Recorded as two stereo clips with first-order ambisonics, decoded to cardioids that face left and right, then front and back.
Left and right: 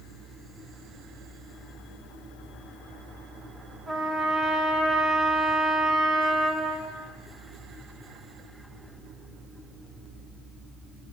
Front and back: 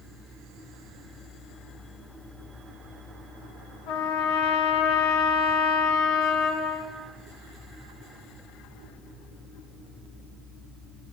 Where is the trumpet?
20° right, 3.5 m.